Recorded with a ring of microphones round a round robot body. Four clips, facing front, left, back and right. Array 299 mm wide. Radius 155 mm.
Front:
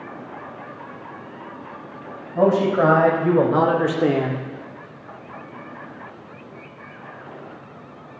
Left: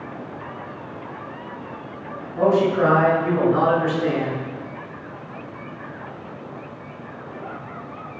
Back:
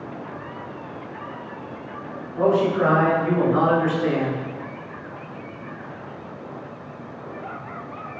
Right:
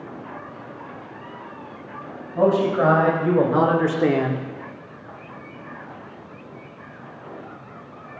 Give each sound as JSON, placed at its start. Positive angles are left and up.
{"t": 2.4, "sound": "a man speaking", "azimuth_deg": -20, "distance_m": 4.0}